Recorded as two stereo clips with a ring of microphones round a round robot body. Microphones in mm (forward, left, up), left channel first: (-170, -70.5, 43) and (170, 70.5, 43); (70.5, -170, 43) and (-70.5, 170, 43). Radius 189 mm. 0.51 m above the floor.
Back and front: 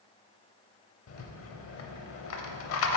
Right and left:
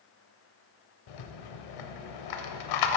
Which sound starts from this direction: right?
A rattle, at 1.1 s.